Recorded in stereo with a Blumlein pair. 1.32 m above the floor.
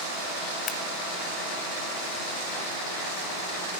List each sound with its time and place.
0.7 s scissors: 30° left, 1.4 m